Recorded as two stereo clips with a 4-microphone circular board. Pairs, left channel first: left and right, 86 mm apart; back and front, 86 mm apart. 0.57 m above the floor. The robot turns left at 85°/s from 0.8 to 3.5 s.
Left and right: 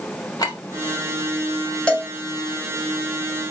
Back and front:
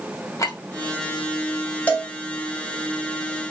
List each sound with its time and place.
0.4 s a clink: 130° left, 1.8 m
1.9 s a cowbell: 150° left, 1.2 m; by 2.1 s 130° left, 1.2 m